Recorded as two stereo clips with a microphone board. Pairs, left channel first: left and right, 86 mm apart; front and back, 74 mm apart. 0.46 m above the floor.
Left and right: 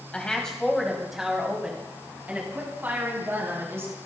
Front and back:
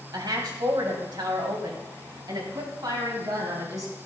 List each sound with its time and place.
0.1 s a woman speaking: 170° left, 3.5 m; by 4.0 s 145° right, 5 m